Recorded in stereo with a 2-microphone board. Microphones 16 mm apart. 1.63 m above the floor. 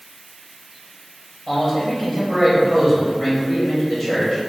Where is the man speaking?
5° right (ahead or behind), 1.2 m.